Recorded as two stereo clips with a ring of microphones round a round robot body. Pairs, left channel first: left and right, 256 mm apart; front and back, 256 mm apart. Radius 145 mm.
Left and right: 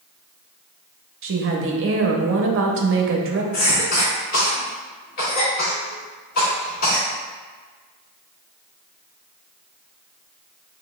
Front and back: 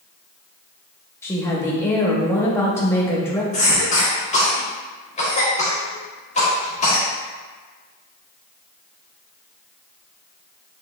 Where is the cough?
65° left, 1.5 m.